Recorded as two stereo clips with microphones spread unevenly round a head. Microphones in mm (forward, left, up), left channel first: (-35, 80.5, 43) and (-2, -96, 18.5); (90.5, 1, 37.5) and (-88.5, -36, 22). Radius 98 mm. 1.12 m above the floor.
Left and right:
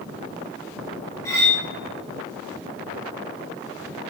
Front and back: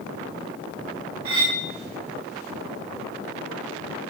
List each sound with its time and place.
1.2 s cutlery clinking: 170° left, 1.3 m